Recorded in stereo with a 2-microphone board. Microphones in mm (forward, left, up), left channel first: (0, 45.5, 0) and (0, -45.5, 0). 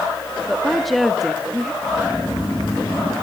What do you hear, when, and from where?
0.5 s a woman speaking: centre (ahead or behind), 1.1 m
1.8 s snoring: 10° left (ahead or behind), 5.5 m